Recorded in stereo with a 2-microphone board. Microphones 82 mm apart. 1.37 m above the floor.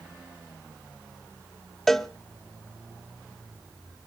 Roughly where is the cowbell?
Centre.